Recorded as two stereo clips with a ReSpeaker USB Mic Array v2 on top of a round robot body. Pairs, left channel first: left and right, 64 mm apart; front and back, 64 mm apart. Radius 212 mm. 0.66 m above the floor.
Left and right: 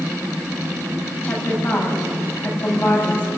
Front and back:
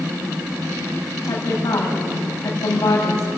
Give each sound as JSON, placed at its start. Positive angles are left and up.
{"t": 1.2, "sound": "a woman speaking", "azimuth_deg": 30, "distance_m": 6.5}